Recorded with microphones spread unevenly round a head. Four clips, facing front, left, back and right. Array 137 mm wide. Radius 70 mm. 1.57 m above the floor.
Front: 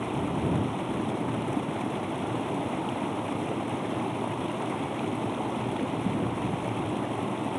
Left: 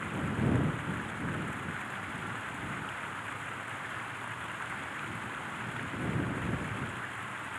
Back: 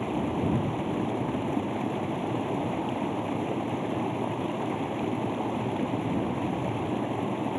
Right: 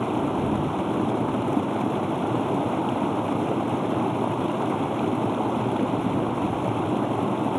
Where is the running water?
95° right.